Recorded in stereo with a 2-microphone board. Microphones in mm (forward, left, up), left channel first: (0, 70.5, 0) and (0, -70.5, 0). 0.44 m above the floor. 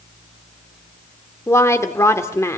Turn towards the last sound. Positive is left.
turn(degrees=20)  # may be behind; listen again after turning